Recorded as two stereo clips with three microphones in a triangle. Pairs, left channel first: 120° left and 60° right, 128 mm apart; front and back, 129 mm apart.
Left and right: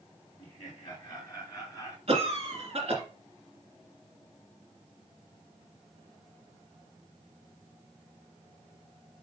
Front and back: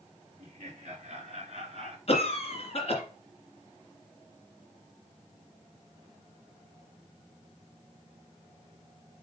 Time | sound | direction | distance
0.4 | laughter | 175° left | 3.5 m
2.1 | a cough | 30° right | 2.5 m